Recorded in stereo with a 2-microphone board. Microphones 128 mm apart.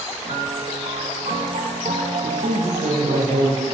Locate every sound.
0.2 s a piano: 55° right (ahead or behind), 3.5 m
2.2 s a man speaking: 70° right (ahead or behind), 5.5 m